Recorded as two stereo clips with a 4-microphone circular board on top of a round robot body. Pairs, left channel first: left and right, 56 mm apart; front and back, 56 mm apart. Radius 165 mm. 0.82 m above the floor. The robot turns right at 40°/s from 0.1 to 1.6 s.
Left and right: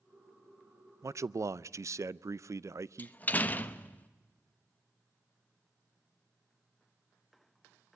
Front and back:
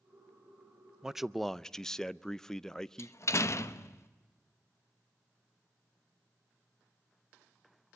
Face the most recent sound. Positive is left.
turn(degrees=30)